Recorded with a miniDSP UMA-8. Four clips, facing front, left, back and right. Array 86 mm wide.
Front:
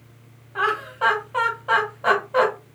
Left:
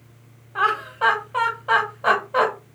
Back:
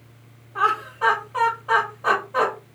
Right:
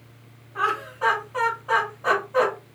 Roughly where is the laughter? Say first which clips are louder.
Left 4 dB, back 1 dB; ahead left.